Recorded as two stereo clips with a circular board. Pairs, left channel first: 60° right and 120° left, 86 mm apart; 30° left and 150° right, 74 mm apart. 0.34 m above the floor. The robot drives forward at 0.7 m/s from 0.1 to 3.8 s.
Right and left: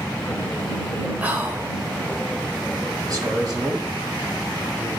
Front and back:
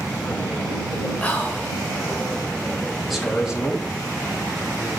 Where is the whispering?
70° left, 1.1 m; by 1.7 s 105° left, 1.1 m.